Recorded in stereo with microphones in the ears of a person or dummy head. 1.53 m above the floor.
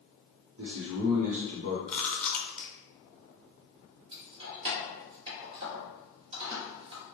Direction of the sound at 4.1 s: 30° right (ahead or behind).